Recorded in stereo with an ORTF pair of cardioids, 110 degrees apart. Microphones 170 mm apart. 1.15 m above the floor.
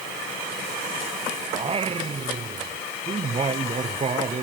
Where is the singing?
35° right.